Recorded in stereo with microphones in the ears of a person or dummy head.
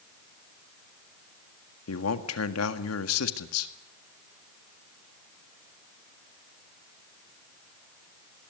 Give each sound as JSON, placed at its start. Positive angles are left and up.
{"t": 1.9, "sound": "a man speaking", "side_deg": 85, "distance_m": 1.8}